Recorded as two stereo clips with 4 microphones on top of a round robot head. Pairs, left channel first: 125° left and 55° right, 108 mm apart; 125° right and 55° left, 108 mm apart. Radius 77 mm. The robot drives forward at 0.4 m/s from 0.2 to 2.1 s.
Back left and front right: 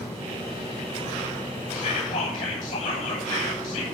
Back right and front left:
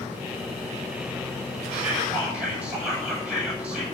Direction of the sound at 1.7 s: 135° left.